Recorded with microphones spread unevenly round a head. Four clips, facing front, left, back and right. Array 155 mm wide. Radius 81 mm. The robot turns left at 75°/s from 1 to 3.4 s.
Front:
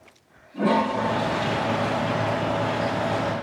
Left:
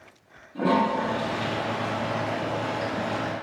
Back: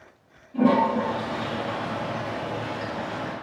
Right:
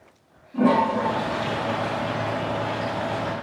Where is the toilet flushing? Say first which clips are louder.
Right 3 dB, back 2 dB; 115° right, 10 m; by 3.3 s 70° left, 10 m.